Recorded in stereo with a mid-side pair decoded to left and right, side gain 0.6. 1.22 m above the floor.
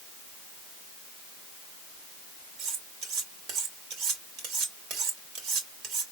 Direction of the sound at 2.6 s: 65° right.